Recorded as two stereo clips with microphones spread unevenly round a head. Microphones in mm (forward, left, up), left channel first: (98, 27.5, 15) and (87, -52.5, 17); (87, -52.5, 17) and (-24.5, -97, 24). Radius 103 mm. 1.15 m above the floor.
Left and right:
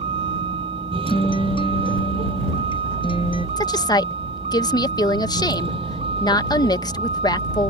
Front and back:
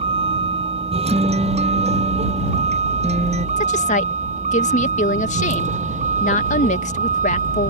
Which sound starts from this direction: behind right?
A vehicle, at 0.0 s.